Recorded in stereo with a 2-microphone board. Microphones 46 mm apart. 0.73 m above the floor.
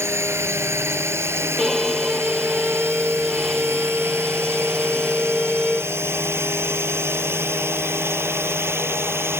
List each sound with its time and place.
0.0 s a drone: 65° right (ahead or behind); by 9.4 s 60° right (ahead or behind)
1.6 s a violin: centre (ahead or behind)